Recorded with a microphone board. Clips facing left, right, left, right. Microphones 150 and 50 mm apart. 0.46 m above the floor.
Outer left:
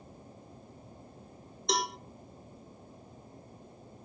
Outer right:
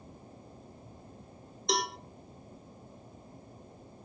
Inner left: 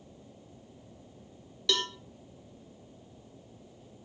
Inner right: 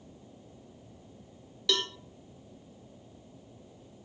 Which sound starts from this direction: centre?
A cowbell, at 1.7 s.